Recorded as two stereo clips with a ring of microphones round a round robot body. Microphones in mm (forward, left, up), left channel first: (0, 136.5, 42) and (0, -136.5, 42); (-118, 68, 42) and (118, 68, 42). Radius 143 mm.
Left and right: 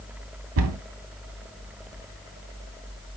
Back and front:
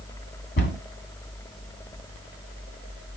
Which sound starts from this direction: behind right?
A cupboard door, at 0.6 s.